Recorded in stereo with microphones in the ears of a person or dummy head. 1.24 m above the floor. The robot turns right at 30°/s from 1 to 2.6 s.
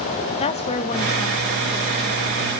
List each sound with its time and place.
0.4 s a woman speaking: 145° left, 1.4 m; by 2.2 s straight behind, 1.4 m